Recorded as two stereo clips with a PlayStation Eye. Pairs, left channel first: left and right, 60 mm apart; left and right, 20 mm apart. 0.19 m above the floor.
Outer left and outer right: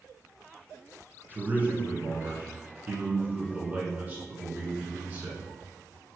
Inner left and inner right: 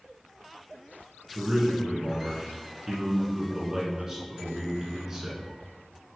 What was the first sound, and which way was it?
A man speaking, 30° right (ahead or behind).